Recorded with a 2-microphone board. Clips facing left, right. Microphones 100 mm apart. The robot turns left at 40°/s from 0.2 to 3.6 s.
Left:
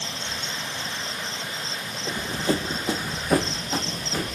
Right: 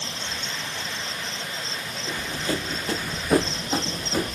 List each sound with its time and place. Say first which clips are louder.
2.1 s running footsteps: left 3 dB; 30° left (ahead or behind), 0.5 m; by 4.4 s 25° right (ahead or behind), 1.2 m